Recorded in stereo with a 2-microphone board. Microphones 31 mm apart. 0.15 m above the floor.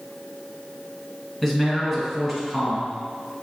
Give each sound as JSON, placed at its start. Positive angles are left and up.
{"t": 1.4, "sound": "a man speaking", "side_deg": 5, "distance_m": 1.3}